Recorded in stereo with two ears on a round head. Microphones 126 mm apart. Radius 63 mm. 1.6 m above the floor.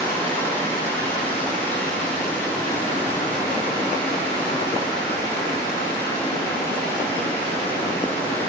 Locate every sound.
0.0 s running water: 40° left (ahead or behind), 5 m